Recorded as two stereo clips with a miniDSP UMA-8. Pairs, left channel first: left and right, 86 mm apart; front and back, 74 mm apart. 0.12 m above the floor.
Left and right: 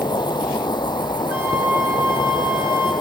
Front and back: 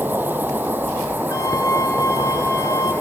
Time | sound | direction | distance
0.0 | an insect | 115° left | 0.8 m
1.3 | a flute | 35° right | 5 m